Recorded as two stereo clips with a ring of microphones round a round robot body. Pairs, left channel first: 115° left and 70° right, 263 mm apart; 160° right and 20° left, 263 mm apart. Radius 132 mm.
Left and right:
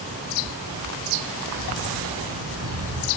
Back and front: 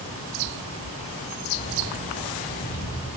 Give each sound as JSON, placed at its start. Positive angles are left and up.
{"t": 1.6, "sound": "keys jangling", "azimuth_deg": -90, "distance_m": 7.0}